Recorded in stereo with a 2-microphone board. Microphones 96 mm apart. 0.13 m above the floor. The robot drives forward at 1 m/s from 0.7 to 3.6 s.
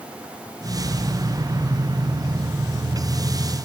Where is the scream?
I don't hear a scream.